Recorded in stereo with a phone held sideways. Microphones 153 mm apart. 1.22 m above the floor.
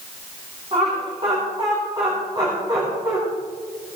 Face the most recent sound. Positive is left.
turn(degrees=-20)  # may be behind; listen again after turning